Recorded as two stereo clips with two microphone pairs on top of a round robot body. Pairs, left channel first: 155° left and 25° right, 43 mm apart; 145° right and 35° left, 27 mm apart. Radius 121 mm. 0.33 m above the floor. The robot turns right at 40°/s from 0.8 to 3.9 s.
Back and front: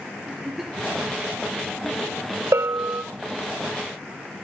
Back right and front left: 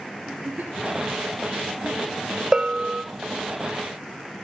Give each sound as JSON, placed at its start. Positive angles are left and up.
{"t": 0.3, "sound": "a giggle", "azimuth_deg": 60, "distance_m": 2.5}
{"t": 2.5, "sound": "a bell", "azimuth_deg": -30, "distance_m": 1.4}